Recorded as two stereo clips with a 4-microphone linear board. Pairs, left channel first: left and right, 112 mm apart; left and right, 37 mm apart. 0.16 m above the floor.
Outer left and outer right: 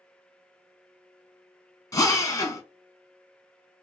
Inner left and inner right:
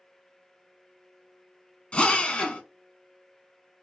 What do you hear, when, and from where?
1.9 s a drill: 30° left (ahead or behind), 0.8 m